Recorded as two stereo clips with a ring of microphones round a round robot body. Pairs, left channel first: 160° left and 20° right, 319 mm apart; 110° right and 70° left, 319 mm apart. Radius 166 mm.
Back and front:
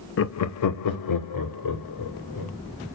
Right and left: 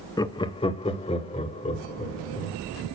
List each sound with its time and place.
0.2 s laughter: 175° left, 0.7 m